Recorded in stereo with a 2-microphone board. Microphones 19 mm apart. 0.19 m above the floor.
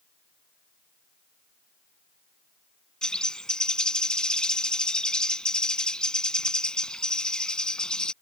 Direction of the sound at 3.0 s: 45° left (ahead or behind).